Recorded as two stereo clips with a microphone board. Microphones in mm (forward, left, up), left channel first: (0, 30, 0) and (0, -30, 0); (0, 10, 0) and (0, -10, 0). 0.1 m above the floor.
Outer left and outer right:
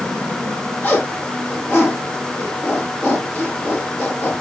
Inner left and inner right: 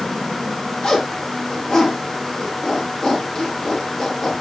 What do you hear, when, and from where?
0.8 s a zipper: 35° left (ahead or behind), 4.5 m